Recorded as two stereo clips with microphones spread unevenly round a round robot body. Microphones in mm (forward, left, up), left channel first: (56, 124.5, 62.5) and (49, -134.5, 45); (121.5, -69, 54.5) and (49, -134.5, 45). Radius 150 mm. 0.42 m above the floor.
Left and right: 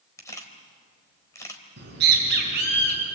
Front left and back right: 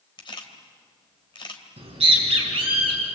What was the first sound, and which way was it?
A camera shutter, 10° left.